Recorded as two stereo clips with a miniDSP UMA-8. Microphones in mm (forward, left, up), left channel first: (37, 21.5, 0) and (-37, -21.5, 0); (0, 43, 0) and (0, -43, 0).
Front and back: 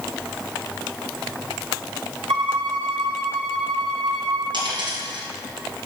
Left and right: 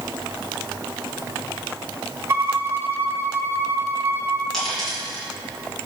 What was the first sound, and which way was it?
A violin, 150° right.